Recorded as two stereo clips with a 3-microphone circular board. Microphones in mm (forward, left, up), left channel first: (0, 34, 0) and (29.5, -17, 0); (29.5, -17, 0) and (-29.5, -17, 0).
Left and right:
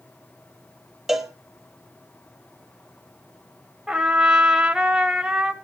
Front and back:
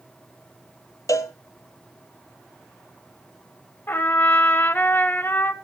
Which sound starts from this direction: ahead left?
A cowbell, at 1.1 s.